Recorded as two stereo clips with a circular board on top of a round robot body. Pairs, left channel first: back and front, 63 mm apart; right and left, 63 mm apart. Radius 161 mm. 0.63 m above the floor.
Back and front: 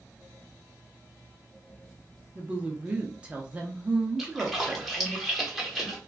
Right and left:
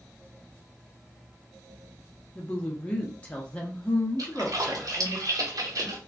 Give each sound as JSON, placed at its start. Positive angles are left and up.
{"t": 2.4, "sound": "a woman speaking", "azimuth_deg": -45, "distance_m": 1.0}
{"t": 4.2, "sound": "a splash", "azimuth_deg": 85, "distance_m": 1.1}